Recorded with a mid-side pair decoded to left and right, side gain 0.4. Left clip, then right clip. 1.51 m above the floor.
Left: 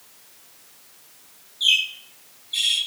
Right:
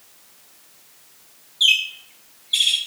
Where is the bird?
65° right, 9.5 m.